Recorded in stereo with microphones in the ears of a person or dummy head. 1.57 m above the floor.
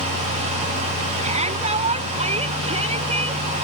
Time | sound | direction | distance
1.2 | a shout | 35° right (ahead or behind) | ?